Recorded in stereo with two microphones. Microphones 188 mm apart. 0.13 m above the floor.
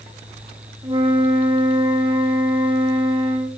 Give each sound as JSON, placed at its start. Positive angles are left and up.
{"t": 0.8, "sound": "a flute", "side_deg": -25, "distance_m": 4.0}